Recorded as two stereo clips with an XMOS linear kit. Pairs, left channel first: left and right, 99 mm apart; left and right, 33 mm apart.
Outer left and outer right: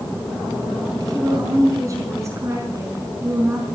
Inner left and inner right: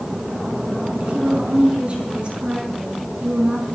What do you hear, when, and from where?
1.0 s a woman speaking: 40° right (ahead or behind), 5.5 m; by 3.6 s 25° right (ahead or behind), 5.5 m